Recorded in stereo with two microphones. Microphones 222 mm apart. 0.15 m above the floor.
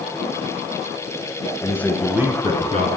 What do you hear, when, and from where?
1.6 s a man speaking: 15° left (ahead or behind), 1.6 m; by 2.9 s 35° right (ahead or behind), 1.6 m